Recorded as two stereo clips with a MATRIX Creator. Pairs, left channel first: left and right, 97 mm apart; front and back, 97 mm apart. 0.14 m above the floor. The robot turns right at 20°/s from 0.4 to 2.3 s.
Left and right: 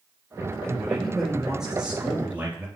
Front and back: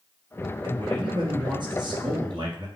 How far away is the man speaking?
About 2.5 m.